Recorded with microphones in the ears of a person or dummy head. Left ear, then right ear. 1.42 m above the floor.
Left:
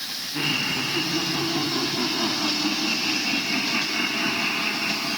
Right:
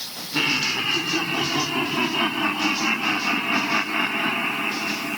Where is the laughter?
85° right, 4.5 m; by 5.2 s 10° left (ahead or behind), 1.5 m.